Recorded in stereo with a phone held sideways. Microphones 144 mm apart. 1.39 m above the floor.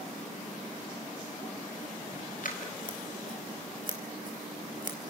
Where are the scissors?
70° left (ahead or behind), 3 m.